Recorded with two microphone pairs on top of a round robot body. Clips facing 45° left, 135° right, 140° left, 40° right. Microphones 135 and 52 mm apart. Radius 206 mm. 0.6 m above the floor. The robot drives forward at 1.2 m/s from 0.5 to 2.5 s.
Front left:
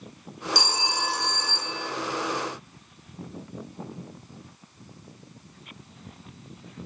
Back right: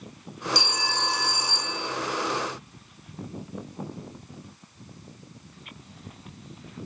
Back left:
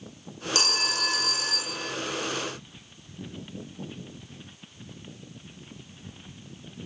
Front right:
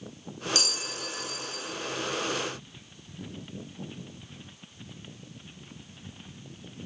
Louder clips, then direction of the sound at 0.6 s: Front left 1 dB, back left 9 dB; 85° left.